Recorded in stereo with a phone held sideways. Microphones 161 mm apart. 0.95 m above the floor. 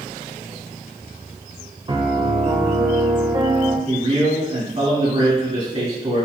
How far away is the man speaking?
About 2.0 m.